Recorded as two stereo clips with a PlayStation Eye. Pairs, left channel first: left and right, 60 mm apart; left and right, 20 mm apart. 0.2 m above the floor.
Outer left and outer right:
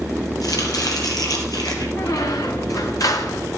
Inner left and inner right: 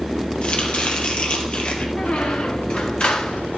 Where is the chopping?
80° left, 2.5 m.